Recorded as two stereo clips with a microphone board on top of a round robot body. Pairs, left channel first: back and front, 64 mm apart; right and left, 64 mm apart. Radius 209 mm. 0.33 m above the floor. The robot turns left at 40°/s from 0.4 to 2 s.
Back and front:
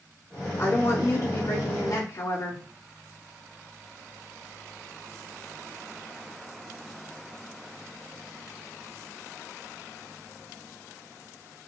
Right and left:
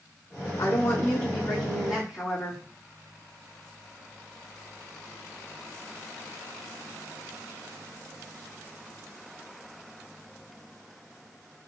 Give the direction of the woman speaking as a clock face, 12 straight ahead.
4 o'clock.